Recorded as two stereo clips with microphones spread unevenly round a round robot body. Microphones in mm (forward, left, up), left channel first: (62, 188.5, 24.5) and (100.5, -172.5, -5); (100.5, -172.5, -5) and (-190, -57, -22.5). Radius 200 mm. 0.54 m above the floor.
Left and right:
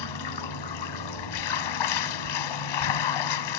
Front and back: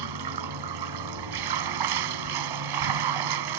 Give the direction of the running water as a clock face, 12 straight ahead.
8 o'clock.